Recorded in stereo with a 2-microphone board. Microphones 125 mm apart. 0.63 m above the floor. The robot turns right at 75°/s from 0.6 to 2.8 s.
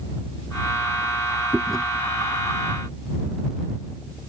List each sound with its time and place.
1.5 s chewing: 15° right (ahead or behind); by 1.9 s 10° left (ahead or behind)